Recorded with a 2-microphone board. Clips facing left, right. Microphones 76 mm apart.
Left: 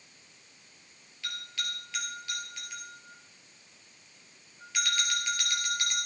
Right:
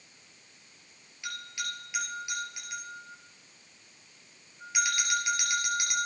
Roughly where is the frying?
No frying in this recording.